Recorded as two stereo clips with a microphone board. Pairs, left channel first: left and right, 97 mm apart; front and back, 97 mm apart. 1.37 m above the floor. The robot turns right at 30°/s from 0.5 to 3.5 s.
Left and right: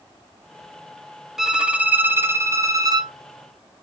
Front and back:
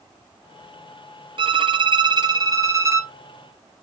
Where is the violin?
175° right, 0.6 m; by 3.1 s 125° right, 0.6 m.